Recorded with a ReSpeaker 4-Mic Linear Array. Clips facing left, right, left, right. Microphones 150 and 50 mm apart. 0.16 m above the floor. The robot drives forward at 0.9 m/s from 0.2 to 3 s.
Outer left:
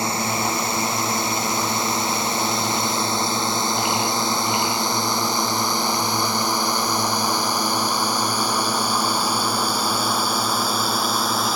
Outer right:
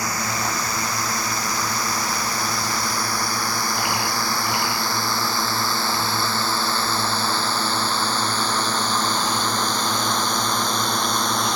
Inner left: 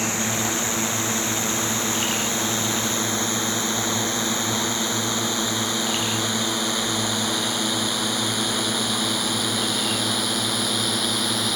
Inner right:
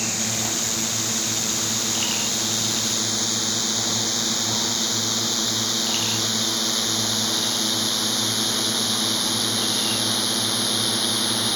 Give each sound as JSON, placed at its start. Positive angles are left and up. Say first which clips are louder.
{"t": 0.0, "sound": "a drone", "louder": "outer left 3 dB, inner left 3 dB", "side_deg": 25}